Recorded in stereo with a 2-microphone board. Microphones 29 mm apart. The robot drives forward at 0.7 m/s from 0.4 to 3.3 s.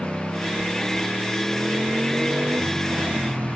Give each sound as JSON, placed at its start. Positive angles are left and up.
{"t": 0.0, "sound": "a motorcycle", "side_deg": -50}